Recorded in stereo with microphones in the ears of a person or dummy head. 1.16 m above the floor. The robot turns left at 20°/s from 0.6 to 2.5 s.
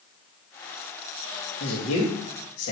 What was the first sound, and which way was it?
A man speaking, 60° left (ahead or behind).